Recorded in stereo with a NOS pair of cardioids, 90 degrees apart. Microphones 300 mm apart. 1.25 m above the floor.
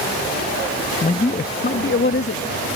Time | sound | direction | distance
1.0 | a man speaking | 25° left | ?